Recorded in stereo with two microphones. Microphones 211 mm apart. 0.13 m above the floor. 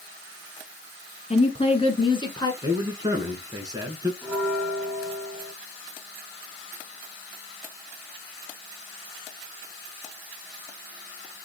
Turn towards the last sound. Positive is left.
turn(degrees=0)  # may be behind; listen again after turning